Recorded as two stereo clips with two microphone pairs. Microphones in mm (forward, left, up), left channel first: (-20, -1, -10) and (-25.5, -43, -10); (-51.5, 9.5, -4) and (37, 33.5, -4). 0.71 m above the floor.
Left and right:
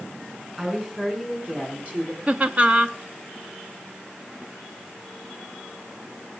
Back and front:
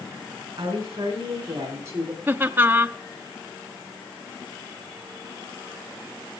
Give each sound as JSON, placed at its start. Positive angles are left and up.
{"t": 0.6, "sound": "a woman speaking", "azimuth_deg": -30, "distance_m": 6.0}
{"t": 2.3, "sound": "laughter", "azimuth_deg": -50, "distance_m": 1.1}